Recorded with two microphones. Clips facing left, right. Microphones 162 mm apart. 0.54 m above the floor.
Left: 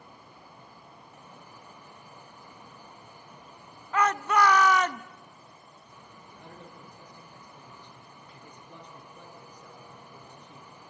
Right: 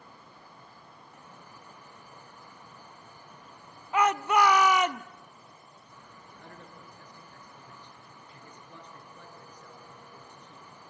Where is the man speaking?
15° left (ahead or behind), 7.5 m.